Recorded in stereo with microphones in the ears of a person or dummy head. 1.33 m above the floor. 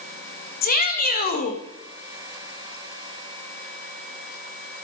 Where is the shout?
50° left (ahead or behind), 1.6 m.